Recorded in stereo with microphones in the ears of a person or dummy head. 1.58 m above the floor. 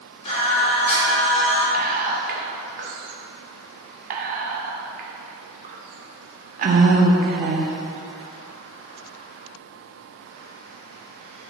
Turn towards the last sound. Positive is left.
turn(degrees=-45)  # may be behind; listen again after turning